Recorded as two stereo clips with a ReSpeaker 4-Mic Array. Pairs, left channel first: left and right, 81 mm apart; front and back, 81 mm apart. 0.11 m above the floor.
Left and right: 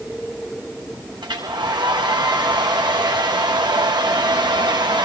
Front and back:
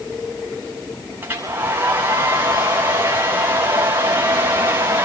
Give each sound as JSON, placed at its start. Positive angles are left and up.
{"t": 1.2, "sound": "a hair dryer", "azimuth_deg": -115, "distance_m": 6.5}